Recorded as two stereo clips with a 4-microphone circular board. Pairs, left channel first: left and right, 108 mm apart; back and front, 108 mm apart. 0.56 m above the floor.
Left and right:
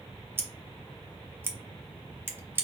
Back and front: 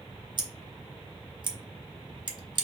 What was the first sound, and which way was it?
Scissors, 25° right.